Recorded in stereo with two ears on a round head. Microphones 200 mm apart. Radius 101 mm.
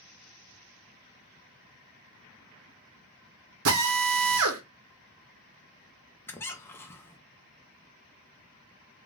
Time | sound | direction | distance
3.6 | a drill | 70° right (ahead or behind) | 1.0 m
6.3 | a squeak | 10° left (ahead or behind) | 0.7 m